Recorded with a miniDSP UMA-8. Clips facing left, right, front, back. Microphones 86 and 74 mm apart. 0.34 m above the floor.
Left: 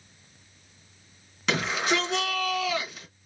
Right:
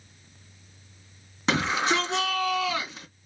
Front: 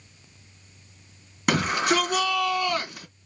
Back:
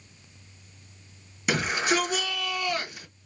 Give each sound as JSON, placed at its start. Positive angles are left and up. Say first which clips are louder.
{"t": 1.5, "sound": "a shout", "louder": "right 2 dB, front 3 dB", "azimuth_deg": -35, "distance_m": 3.0}